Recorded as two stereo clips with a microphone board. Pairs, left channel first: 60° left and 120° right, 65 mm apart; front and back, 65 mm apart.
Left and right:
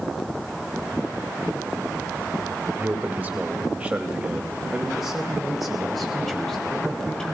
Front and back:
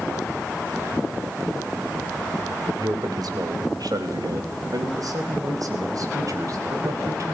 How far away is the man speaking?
About 4 m.